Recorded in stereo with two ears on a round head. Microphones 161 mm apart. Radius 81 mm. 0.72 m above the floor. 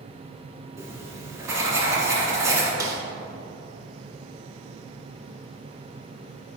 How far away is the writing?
About 2 m.